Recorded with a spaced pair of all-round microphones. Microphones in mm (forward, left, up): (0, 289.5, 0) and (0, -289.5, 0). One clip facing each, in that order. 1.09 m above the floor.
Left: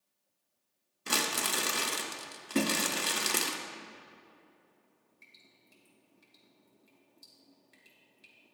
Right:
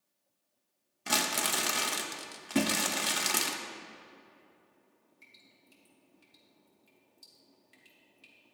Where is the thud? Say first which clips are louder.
Right 1 dB; 15° right (ahead or behind), 0.6 m.